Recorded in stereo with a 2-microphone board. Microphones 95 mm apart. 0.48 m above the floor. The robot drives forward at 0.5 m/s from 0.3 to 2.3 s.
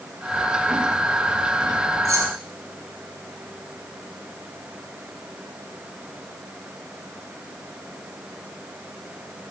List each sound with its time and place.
2.0 s keys jangling: 35° right (ahead or behind), 2.0 m; by 2.3 s 40° right (ahead or behind), 1.9 m